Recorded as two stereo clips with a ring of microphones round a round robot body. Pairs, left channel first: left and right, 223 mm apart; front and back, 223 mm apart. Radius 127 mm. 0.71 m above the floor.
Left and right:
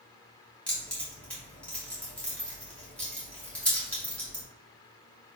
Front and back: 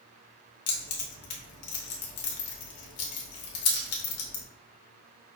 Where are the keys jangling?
5° left, 0.8 m.